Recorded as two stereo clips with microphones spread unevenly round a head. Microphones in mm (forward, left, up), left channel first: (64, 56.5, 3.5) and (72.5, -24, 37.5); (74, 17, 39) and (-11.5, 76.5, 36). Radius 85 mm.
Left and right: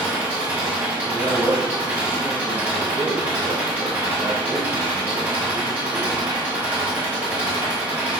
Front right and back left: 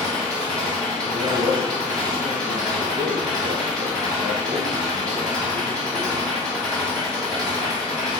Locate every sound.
0.0 s an engine running: 120° right, 0.9 m
1.0 s a man speaking: 160° right, 1.0 m